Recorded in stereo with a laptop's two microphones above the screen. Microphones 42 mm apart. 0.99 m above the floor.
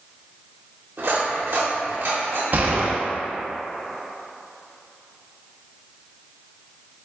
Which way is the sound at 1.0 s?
60° right (ahead or behind).